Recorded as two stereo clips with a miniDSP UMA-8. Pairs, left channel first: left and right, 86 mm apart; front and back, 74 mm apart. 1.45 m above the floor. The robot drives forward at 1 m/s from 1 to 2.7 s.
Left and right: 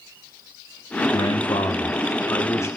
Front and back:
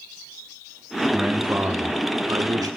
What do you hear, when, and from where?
1.1 s a man speaking: 90° left, 1.1 m; by 2.7 s 145° left, 1.9 m